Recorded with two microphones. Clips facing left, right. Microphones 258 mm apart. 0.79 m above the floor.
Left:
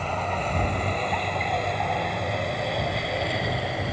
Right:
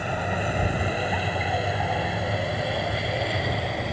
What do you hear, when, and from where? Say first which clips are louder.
0.0 s a vehicle: right 1 dB; 10° right (ahead or behind); by 3.9 s centre (ahead or behind)